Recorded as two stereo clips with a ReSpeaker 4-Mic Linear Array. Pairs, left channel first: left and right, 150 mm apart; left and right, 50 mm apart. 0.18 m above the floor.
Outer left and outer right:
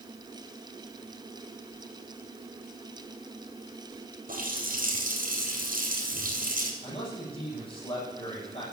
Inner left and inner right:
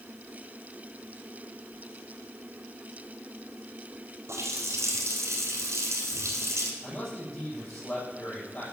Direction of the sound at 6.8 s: 40° left (ahead or behind).